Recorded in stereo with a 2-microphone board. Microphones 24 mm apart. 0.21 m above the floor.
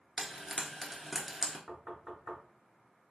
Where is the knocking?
10° right (ahead or behind), 2 m.